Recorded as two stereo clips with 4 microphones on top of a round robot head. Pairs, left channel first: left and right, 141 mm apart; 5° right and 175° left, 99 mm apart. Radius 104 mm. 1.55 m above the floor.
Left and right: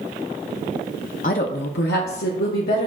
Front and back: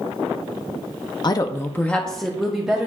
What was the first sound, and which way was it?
A woman speaking, 40° left.